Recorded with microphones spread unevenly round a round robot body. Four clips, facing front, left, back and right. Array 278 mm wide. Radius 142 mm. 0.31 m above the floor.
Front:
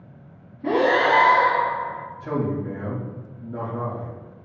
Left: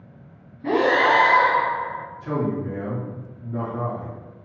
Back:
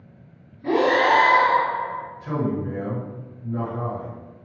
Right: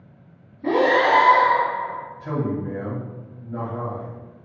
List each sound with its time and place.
0.6 s breathing: 50° right, 1.6 m
2.2 s a man speaking: 45° right, 2.0 m